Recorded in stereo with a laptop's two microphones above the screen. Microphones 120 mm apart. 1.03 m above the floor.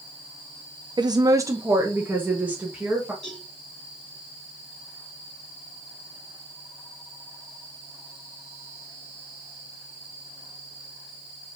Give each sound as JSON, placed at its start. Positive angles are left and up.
{"t": 1.0, "sound": "a woman speaking", "side_deg": -40, "distance_m": 0.5}
{"t": 3.2, "sound": "a cowbell", "side_deg": 5, "distance_m": 4.0}